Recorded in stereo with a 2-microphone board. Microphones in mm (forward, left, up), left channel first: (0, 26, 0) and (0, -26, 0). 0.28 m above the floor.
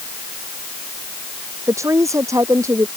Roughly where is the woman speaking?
Right.